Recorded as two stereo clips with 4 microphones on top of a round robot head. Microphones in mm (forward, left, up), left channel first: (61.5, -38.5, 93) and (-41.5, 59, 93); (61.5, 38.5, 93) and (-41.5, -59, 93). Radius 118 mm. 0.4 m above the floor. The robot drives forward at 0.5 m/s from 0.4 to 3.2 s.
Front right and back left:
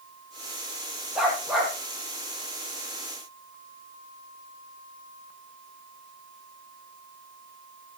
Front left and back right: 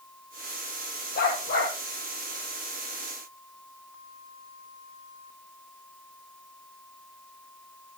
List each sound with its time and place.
1.1 s a dog barking: 45° left, 5.5 m; by 1.7 s 50° left, 5 m